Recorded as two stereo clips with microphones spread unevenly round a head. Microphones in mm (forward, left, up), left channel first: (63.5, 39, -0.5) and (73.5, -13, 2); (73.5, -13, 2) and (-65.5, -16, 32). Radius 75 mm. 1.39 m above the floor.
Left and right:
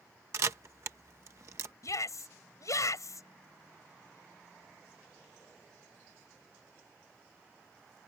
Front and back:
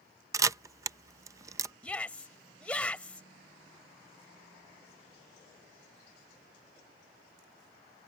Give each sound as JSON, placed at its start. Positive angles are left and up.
{"t": 0.3, "sound": "a camera shutter", "azimuth_deg": -120}
{"t": 1.8, "sound": "a shout", "azimuth_deg": 85}